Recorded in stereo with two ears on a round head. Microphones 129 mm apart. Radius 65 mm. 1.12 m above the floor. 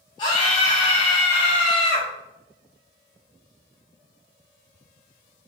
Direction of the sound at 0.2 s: 30° left (ahead or behind).